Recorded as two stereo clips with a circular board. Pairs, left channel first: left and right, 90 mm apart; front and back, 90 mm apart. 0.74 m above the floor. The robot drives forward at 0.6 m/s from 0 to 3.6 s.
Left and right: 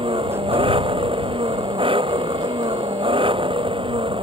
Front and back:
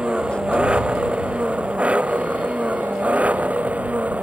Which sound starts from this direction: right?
An engine running, at 0.0 s.